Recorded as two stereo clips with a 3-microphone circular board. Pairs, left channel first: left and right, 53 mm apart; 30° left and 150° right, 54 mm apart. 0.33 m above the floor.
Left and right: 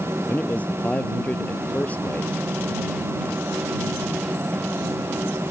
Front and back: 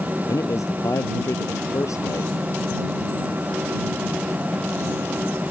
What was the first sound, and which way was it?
A man speaking, 30° left.